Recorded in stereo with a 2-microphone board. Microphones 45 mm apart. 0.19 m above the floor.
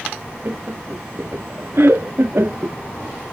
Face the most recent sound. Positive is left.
turn(degrees=-60)  # may be behind; listen again after turning